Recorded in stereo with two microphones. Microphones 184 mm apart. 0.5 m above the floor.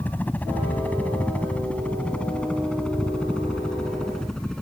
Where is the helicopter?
10° left (ahead or behind); by 4.6 s 5° left (ahead or behind).